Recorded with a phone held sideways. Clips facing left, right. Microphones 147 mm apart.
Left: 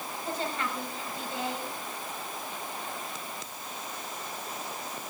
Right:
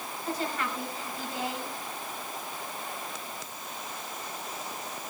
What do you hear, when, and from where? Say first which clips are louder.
0.2 s a woman speaking: right 1 dB; 25° left (ahead or behind), 6.5 m